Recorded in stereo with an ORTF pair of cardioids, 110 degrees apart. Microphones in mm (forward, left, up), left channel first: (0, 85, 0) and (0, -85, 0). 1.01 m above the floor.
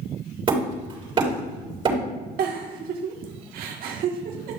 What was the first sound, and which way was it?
Hammering, 30° right.